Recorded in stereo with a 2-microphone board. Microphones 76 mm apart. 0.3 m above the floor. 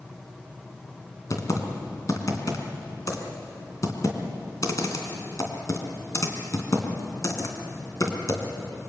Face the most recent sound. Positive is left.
turn(degrees=45)  # may be behind; listen again after turning